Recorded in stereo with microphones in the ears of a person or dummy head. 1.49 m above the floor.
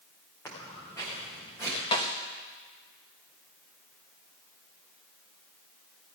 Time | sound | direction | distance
0.5 | footsteps | 15° left (ahead or behind) | 8 m
1.9 | a snare drum | 25° left (ahead or behind) | 1.4 m